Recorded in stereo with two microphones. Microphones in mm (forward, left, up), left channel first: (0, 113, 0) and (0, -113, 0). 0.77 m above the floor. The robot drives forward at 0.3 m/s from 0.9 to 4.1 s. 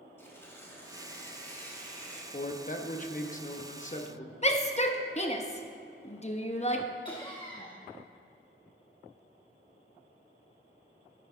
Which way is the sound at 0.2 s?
10° left (ahead or behind).